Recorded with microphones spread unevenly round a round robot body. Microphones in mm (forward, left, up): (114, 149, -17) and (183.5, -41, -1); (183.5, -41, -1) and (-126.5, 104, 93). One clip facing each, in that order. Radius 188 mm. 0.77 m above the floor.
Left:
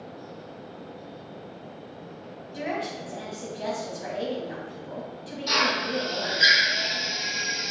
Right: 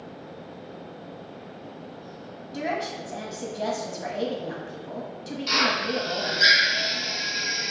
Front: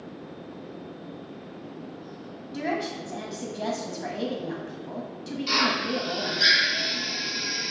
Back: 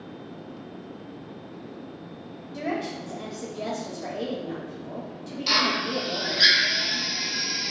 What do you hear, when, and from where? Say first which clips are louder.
2.5 s a woman speaking: right 1 dB, even; 65° right, 0.9 m
5.5 s a drill: even, even; 175° right, 0.7 m